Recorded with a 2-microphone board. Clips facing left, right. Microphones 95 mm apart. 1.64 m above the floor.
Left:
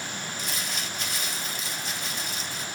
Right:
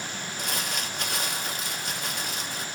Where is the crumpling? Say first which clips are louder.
Right 5 dB; 65° right (ahead or behind), 3 m.